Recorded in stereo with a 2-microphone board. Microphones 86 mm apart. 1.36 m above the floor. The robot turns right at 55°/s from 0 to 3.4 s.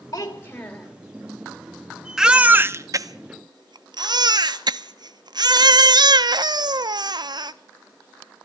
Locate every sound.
0.1 s a child speaking: 135° left, 2.5 m; by 0.9 s 175° left, 2.5 m
2.2 s a baby crying: 175° right, 0.5 m; by 7.5 s 105° right, 0.5 m